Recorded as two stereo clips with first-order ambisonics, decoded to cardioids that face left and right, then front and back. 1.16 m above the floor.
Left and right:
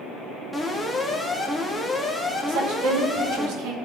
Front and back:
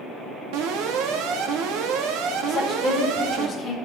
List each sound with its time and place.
0.5 s an alarm: straight behind, 1.8 m
2.5 s a woman speaking: 75° right, 4.5 m